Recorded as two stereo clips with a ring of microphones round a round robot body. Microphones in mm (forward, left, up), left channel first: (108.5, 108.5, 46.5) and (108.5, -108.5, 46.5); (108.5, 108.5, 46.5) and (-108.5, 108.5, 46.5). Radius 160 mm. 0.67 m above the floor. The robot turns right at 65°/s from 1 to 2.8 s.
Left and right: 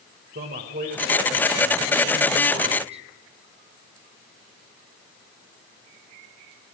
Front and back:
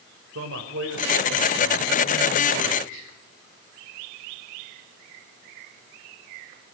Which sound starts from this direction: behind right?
A man speaking, at 0.3 s.